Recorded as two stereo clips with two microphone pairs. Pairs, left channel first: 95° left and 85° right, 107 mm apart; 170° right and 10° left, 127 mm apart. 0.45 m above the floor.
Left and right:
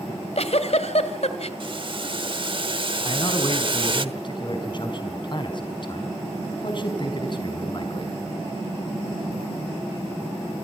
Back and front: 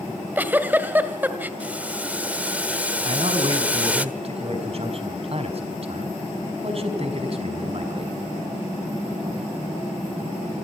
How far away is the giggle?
About 2.5 m.